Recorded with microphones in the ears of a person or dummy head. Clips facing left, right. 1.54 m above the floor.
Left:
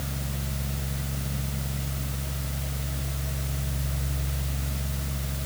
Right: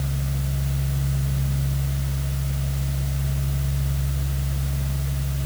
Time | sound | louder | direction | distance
0.0 | a fan | right 5 dB | 60° right (ahead or behind) | 0.8 m